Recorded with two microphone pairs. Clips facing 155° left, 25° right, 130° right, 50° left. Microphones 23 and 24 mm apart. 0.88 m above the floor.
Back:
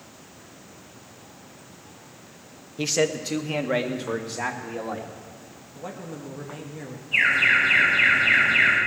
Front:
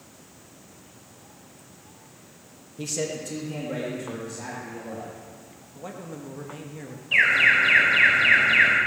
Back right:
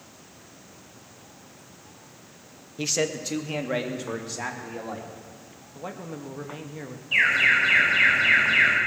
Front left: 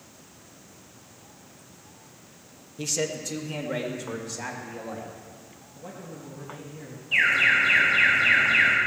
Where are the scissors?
No scissors in this recording.